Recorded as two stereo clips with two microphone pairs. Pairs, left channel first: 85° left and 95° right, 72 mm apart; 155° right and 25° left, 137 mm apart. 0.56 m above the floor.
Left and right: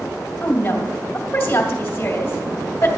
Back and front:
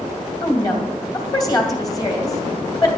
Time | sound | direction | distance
0.4 | a woman speaking | 145° left | 2.5 m